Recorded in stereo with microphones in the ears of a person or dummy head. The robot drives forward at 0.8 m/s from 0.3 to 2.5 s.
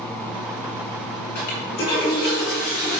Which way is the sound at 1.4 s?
30° left (ahead or behind).